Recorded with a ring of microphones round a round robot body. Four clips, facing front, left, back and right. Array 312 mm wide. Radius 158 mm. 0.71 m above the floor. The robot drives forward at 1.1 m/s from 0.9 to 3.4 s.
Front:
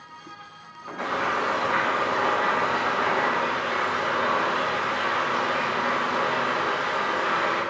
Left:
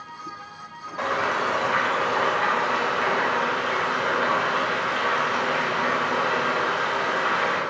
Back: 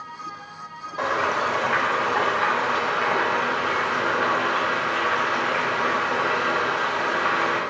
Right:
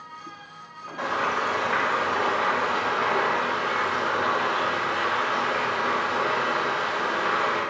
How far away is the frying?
About 1.2 m.